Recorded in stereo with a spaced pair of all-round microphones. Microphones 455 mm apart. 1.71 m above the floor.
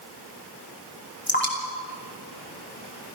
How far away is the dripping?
About 3.5 m.